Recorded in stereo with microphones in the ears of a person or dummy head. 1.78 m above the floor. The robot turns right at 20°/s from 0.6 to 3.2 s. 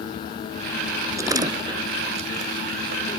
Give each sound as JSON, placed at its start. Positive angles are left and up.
{"t": 1.2, "sound": "a door slam", "side_deg": -20}